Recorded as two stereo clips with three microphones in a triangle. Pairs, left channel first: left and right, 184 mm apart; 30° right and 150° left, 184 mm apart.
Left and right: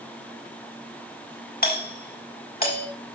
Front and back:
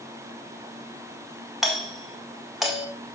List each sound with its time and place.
1.6 s a doorbell: 60° left, 2 m